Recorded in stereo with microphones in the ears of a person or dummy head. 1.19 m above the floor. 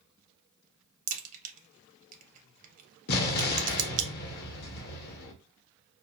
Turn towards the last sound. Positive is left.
turn(degrees=55)  # may be behind; listen again after turning